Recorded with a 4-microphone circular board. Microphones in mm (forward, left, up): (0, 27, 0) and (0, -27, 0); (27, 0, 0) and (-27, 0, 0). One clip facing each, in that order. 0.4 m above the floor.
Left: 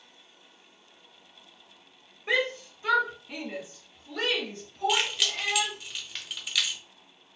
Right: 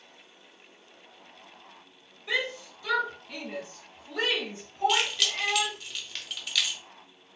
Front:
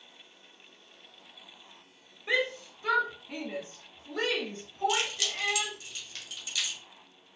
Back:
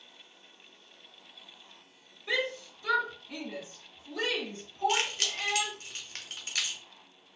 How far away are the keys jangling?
About 0.8 m.